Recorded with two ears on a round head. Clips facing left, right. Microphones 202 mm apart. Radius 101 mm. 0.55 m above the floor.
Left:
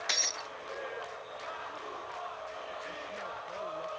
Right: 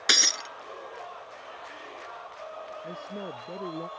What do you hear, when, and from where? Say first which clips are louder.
0.1 s breaking glass: right 6 dB; 80° right
2.8 s a man speaking: right 5 dB; 80° right